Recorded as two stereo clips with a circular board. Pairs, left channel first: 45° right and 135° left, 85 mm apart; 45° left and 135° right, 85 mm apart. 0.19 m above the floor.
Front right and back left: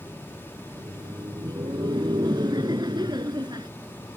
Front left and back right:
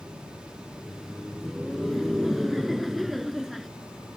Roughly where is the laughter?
Behind left.